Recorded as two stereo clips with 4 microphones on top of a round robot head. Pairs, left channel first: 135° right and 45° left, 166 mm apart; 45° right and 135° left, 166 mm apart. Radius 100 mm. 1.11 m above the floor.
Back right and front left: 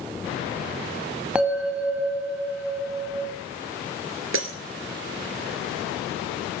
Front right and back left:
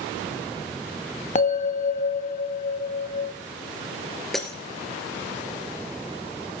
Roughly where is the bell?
Ahead right.